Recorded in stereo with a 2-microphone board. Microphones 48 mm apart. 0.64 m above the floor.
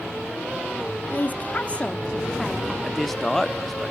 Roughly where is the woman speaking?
Left.